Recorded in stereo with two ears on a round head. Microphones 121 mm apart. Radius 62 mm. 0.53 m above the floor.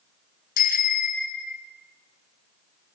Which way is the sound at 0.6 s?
80° left.